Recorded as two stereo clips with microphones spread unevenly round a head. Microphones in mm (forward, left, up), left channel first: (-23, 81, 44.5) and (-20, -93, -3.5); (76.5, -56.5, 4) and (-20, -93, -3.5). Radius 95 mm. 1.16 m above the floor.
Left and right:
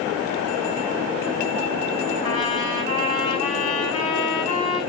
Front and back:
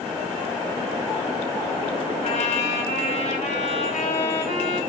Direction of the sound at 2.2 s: 25° left.